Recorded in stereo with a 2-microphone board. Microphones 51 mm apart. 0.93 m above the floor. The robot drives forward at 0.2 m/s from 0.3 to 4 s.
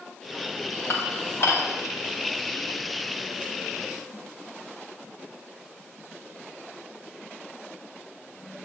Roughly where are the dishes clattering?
Left.